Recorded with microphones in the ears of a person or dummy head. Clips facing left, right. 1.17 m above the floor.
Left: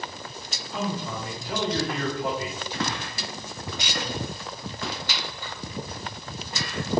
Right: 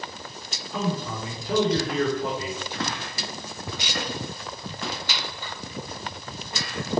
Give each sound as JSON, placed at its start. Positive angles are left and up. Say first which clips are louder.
{"t": 0.7, "sound": "a man speaking", "louder": "right 2 dB", "side_deg": -85, "distance_m": 3.0}